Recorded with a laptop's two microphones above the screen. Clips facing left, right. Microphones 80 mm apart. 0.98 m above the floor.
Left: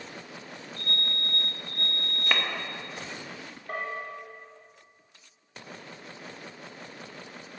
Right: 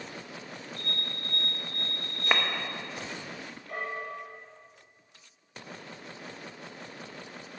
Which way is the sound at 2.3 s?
20° right (ahead or behind).